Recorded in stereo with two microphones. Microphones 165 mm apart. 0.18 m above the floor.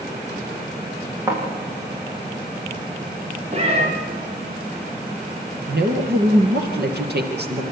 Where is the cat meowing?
35° right (ahead or behind), 4.5 m.